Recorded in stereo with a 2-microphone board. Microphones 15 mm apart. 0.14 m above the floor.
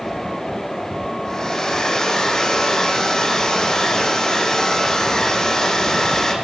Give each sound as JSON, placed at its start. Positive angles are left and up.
{"t": 1.2, "sound": "a hair dryer", "side_deg": 40, "distance_m": 5.5}